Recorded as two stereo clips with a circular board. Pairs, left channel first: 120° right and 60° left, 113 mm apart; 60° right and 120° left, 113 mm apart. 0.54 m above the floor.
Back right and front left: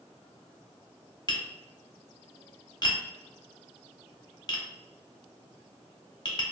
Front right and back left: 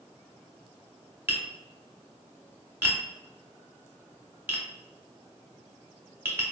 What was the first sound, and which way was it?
Tapping, 170° right.